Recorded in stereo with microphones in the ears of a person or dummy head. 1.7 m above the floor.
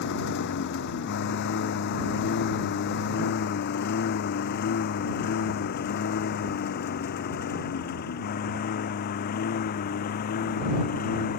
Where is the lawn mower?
60° left (ahead or behind); by 11.4 s 45° left (ahead or behind).